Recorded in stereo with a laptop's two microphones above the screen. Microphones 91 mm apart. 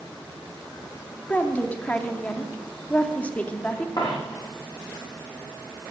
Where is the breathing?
I don't hear breathing.